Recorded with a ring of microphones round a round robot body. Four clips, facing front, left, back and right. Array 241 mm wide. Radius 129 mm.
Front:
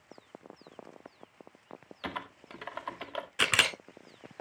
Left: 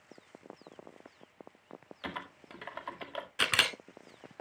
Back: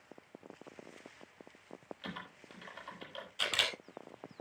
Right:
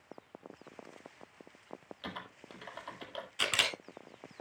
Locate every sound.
2.0 s typing on a keyboard: 20° left, 1.9 m
3.4 s a camera shutter: 25° left, 1.4 m